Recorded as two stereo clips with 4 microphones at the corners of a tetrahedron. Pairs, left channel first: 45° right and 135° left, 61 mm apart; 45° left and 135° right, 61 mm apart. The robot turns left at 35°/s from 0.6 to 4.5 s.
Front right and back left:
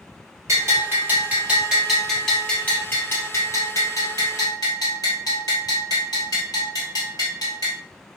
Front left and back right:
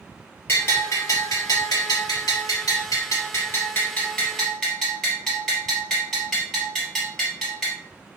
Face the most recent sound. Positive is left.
turn(degrees=-40)